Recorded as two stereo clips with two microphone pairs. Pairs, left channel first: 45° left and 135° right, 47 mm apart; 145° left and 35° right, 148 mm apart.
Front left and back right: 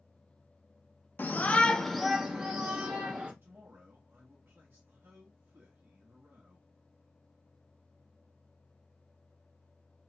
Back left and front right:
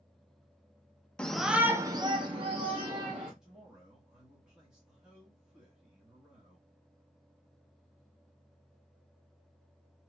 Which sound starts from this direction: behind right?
A man speaking, at 3.4 s.